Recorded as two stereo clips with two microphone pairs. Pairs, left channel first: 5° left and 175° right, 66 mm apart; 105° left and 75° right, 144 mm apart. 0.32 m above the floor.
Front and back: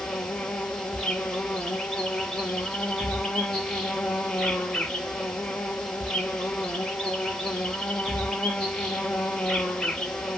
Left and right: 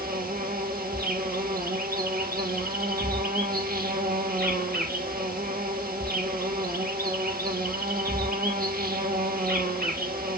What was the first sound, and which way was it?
An insect, 75° right.